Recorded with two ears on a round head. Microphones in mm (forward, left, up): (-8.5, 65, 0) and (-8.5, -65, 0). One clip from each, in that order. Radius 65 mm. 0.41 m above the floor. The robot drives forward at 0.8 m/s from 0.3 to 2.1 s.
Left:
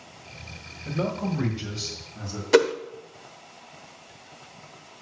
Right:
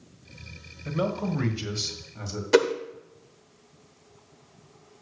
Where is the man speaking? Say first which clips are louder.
Right 1 dB; 55° right (ahead or behind), 1.7 m; by 2.4 s 45° right (ahead or behind), 2 m.